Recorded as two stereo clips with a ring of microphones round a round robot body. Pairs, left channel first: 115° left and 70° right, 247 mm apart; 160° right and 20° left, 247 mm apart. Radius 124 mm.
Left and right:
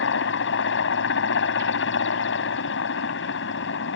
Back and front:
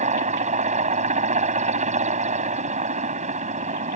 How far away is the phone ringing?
No phone ringing in this recording.